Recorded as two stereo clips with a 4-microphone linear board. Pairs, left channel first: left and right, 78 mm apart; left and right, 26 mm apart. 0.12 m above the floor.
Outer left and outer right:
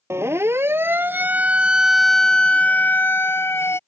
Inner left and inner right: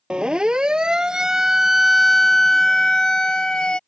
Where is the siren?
35° right (ahead or behind); by 3.8 s 30° left (ahead or behind).